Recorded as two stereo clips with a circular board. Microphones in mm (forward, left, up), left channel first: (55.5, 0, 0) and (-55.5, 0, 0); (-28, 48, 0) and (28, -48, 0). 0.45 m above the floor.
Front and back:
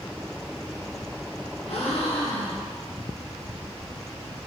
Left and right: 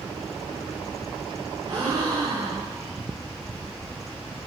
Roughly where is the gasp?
Ahead.